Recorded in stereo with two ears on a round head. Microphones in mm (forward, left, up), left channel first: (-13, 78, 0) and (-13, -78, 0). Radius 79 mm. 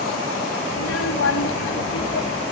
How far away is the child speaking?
About 2 m.